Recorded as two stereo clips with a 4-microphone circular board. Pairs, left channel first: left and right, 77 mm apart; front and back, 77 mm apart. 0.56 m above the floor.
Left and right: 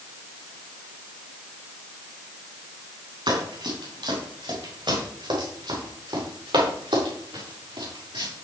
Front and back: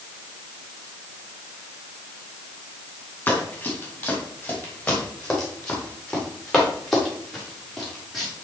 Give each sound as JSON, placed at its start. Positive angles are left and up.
{"t": 3.3, "sound": "running footsteps", "azimuth_deg": -70, "distance_m": 8.5}